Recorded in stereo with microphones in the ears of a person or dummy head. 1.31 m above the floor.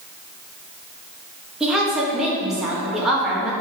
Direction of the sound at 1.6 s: Centre (ahead or behind).